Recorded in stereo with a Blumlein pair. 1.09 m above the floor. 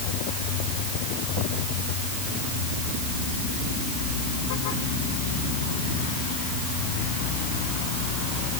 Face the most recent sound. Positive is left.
No sound to turn to.